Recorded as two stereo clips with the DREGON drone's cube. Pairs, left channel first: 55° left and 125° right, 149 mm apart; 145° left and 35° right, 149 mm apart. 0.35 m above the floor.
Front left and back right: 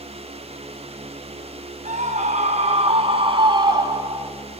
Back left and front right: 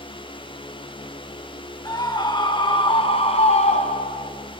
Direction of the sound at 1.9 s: 150° right.